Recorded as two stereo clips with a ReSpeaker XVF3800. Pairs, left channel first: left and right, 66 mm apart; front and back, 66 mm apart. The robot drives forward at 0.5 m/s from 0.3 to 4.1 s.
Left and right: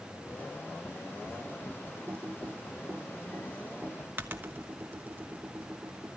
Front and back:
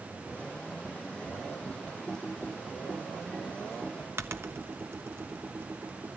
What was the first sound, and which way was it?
Typing on a keyboard, 75° right.